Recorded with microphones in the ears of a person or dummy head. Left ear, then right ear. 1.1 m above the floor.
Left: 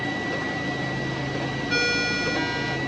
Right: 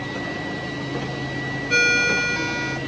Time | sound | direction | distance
1.7 | a ringtone | 20° right (ahead or behind) | 2.5 m